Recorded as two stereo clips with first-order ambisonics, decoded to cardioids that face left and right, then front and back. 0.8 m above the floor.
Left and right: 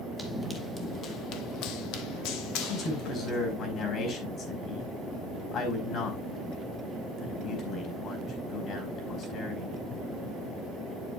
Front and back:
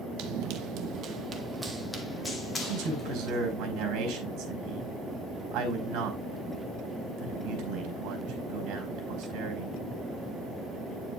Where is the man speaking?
145° left, 4.5 m.